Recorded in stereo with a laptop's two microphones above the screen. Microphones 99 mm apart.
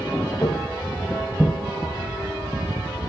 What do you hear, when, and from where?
0.4 s footsteps: 40° left (ahead or behind), 1.8 m; by 1.6 s 10° left (ahead or behind), 1.3 m